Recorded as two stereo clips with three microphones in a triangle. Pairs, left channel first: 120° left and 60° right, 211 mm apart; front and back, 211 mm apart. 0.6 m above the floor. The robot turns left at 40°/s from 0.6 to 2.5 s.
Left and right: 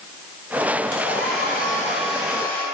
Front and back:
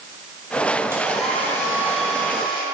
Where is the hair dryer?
100° left, 3.5 m; by 2.6 s 40° left, 3.5 m.